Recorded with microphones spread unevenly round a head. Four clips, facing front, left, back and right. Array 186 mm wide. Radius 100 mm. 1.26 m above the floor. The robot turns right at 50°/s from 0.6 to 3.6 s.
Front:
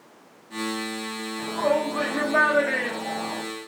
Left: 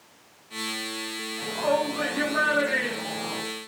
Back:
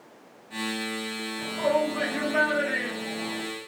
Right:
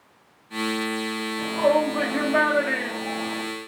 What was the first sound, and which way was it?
A shout, 90° right.